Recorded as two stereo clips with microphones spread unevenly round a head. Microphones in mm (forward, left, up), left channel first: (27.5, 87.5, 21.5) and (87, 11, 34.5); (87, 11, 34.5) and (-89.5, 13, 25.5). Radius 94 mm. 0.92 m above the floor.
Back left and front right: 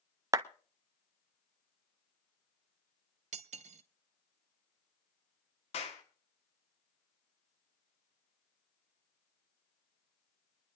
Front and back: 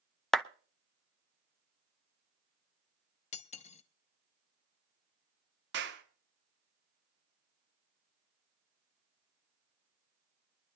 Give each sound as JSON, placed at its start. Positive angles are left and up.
{"t": 0.3, "sound": "a clap", "azimuth_deg": -90, "distance_m": 0.6}
{"t": 3.3, "sound": "cutlery clinking", "azimuth_deg": -60, "distance_m": 0.8}
{"t": 5.7, "sound": "a clap", "azimuth_deg": 155, "distance_m": 2.0}